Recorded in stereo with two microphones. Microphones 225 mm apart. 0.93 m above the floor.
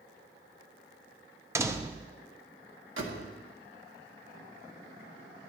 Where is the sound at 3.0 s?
60° right (ahead or behind), 1.4 m.